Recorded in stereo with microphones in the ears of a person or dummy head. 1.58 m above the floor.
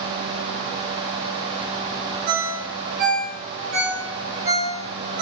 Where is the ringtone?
60° right (ahead or behind), 2 m.